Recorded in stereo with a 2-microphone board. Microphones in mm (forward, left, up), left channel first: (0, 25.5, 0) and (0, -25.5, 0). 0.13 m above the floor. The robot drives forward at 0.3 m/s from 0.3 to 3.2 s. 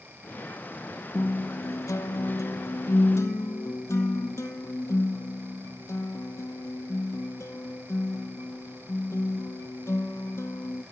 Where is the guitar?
60° left (ahead or behind), 0.6 m.